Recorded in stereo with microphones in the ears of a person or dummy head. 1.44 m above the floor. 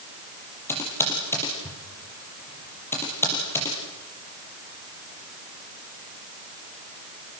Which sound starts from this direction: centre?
Typing on a keyboard, at 0.7 s.